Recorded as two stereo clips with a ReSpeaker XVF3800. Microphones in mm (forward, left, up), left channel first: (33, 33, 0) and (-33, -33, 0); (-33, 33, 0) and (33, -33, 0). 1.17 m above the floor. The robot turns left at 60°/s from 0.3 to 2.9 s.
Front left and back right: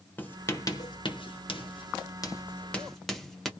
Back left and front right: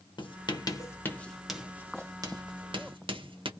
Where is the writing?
115° left, 0.8 m; by 3.5 s 40° right, 0.8 m.